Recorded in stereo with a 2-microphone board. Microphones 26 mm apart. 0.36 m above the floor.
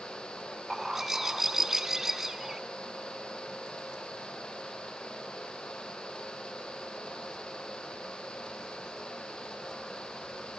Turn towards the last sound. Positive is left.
turn(degrees=-20)  # may be behind; listen again after turning